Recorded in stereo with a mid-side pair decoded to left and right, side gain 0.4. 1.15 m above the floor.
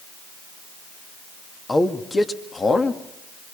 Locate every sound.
1.7 s a man speaking: 25° left, 2 m; by 3.0 s 45° left, 2 m